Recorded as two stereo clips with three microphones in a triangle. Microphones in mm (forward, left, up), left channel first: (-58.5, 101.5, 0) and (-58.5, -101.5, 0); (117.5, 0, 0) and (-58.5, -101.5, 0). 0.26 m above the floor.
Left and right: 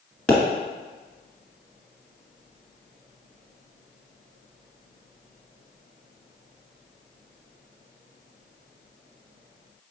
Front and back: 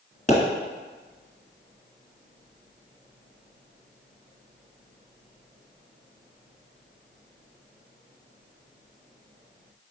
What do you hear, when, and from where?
0.3 s a pop: 5° left, 1.4 m